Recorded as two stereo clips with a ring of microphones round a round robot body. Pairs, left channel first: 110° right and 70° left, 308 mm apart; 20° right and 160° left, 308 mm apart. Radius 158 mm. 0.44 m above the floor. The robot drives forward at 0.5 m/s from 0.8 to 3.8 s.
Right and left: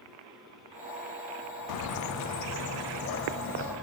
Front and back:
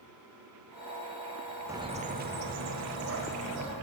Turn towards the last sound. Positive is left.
turn(degrees=-165)